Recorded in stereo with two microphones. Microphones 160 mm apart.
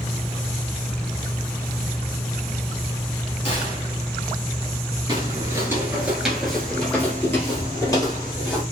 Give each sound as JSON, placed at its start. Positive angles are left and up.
{"t": 3.5, "sound": "a gunshot", "side_deg": 35, "distance_m": 1.6}
{"t": 5.1, "sound": "footsteps", "side_deg": -25, "distance_m": 1.5}